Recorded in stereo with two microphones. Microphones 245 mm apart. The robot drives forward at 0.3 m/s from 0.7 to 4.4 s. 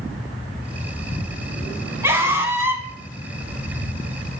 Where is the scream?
10° right (ahead or behind), 1.7 m.